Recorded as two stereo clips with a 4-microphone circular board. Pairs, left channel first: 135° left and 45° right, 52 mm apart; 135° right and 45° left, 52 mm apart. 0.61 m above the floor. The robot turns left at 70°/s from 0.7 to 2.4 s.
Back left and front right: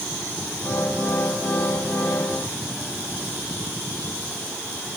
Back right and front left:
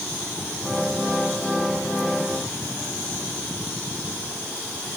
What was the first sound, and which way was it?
Only background noise.